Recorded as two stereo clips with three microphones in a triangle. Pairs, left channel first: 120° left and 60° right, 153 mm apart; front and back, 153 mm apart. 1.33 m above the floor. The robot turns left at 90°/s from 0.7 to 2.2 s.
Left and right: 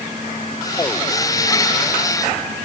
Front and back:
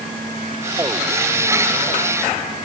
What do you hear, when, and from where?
Only background noise.